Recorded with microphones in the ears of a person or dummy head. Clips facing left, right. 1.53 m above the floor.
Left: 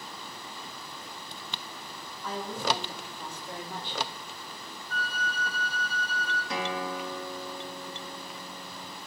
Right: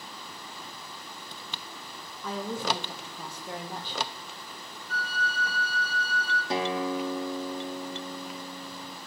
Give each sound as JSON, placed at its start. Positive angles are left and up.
{"t": 2.2, "sound": "a woman speaking", "side_deg": -65, "distance_m": 1.8}
{"t": 4.9, "sound": "a flute", "side_deg": -65, "distance_m": 2.5}
{"t": 6.5, "sound": "a guitar", "side_deg": -30, "distance_m": 0.6}